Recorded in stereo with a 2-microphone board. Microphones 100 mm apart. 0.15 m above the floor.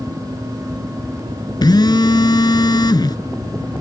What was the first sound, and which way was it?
A phone buzzing, 45° left (ahead or behind).